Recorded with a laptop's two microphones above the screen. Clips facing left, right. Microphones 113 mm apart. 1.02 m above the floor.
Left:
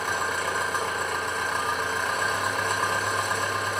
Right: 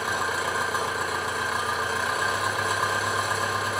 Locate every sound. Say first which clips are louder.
0.0 s an engine running: right 1 dB; 5° right (ahead or behind), 1.3 m